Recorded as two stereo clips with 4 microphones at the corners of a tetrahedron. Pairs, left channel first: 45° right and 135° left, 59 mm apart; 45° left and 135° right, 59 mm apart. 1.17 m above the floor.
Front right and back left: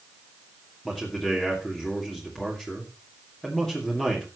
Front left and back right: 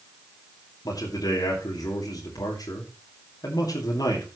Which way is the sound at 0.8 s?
35° left.